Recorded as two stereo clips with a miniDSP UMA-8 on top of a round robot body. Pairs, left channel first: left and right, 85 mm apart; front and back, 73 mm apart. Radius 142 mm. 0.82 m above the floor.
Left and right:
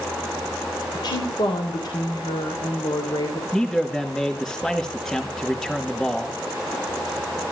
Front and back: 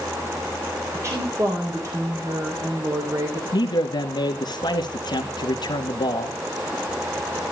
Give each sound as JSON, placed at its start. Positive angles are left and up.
{"t": 0.9, "sound": "a woman speaking", "azimuth_deg": 130, "distance_m": 3.0}
{"t": 3.5, "sound": "a man speaking", "azimuth_deg": 5, "distance_m": 2.0}